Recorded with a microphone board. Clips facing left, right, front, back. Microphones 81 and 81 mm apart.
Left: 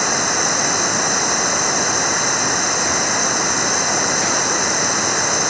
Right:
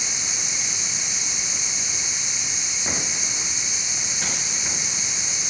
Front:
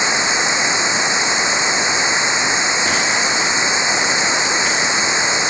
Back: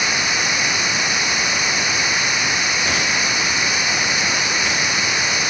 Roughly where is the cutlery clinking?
I don't hear cutlery clinking.